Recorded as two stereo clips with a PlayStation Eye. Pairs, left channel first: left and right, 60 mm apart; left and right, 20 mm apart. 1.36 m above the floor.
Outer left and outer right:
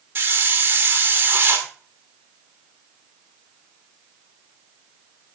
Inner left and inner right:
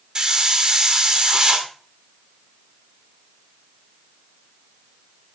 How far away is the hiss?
About 2 m.